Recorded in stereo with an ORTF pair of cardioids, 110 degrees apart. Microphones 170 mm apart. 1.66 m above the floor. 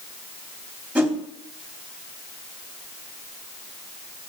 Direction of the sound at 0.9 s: 10° right.